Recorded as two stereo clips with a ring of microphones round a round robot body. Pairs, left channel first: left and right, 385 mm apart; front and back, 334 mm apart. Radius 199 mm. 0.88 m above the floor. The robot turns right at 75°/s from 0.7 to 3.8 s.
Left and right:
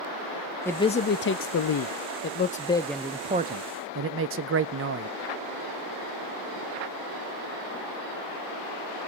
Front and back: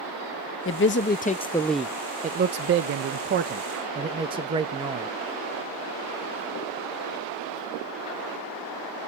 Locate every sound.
0.7 s a man speaking: 10° left, 0.6 m; by 5.1 s 115° right, 0.6 m